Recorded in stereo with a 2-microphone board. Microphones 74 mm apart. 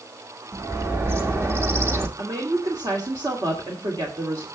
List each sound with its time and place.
0.5 s a bird: 35° right (ahead or behind), 1.4 m
2.2 s a woman speaking: 60° right (ahead or behind), 2.5 m